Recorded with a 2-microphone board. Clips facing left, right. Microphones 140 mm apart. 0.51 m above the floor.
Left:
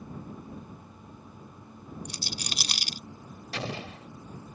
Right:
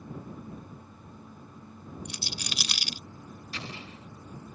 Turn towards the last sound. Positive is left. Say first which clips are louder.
# left 8 dB
turn(degrees=75)  # may be behind; listen again after turning